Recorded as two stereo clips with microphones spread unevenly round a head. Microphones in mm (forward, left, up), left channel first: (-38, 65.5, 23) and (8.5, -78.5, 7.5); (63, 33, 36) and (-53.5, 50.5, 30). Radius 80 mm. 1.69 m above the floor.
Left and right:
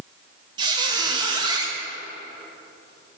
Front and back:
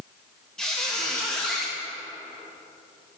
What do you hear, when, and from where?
0.6 s a squeak: 75° right, 1.0 m